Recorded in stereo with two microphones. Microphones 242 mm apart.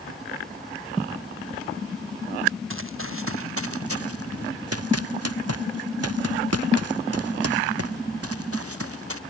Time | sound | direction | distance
2.7 | running footsteps | 60° right (ahead or behind) | ?